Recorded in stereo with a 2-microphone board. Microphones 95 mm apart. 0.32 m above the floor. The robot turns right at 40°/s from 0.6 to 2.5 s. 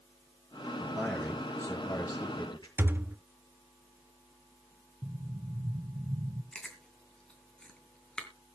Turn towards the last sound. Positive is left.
turn(degrees=10)  # may be behind; listen again after turning